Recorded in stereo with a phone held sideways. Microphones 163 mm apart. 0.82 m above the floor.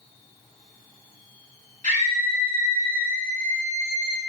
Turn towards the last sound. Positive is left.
turn(degrees=-30)  # may be behind; listen again after turning